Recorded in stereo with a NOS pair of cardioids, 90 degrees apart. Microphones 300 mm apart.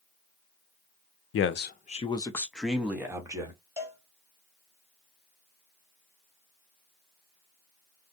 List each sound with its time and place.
1.3 s a man speaking: 50° left, 0.6 m; by 3.6 s 15° right, 1.3 m
3.8 s a cowbell: 10° right, 1.5 m